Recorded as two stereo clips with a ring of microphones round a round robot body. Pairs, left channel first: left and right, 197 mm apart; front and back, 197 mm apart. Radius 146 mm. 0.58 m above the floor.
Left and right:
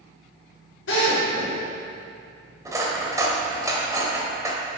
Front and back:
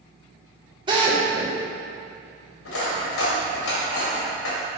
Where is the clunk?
I don't hear a clunk.